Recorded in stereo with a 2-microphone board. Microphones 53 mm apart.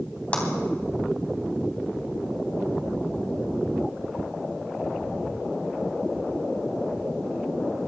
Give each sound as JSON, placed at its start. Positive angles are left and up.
{"t": 0.3, "sound": "a clap", "side_deg": 25, "distance_m": 3.0}